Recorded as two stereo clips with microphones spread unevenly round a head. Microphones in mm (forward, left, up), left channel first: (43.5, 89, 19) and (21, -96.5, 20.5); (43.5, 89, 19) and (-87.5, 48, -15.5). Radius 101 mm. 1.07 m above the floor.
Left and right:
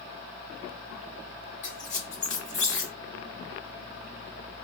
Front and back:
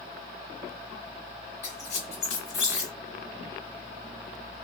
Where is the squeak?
35° left, 1.8 m.